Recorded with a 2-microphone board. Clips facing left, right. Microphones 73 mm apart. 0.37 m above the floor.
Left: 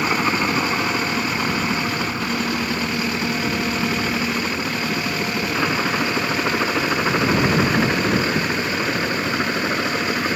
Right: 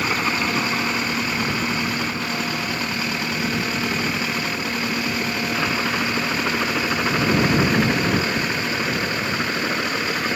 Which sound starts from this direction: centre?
A helicopter, at 0.0 s.